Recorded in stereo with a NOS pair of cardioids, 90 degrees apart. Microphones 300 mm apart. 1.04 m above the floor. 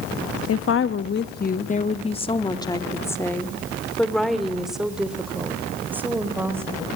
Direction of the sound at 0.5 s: 50° left.